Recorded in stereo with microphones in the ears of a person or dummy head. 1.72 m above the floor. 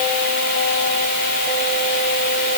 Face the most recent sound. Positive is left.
No sound to turn to.